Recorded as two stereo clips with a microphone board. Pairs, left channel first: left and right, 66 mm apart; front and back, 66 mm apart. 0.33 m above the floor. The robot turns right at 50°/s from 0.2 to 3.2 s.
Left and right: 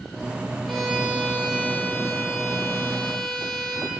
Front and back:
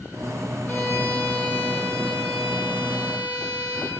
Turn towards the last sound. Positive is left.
turn(degrees=130)